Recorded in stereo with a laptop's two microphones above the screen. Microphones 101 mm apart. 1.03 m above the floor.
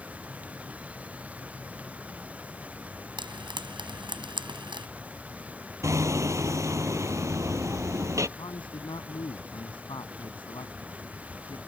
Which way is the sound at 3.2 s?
55° right (ahead or behind).